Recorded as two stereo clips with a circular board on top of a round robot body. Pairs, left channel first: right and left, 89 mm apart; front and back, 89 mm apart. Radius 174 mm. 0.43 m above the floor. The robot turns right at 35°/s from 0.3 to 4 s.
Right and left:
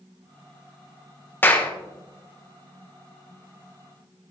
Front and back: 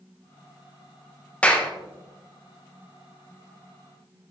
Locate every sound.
1.4 s a clap: 55° right, 1.1 m; by 1.7 s 45° right, 1.1 m